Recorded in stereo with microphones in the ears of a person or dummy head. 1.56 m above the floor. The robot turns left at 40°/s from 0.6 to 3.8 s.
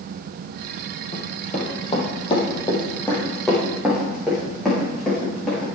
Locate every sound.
1.1 s running footsteps: 30° left (ahead or behind), 3 m; by 5.7 s 5° right (ahead or behind), 7.5 m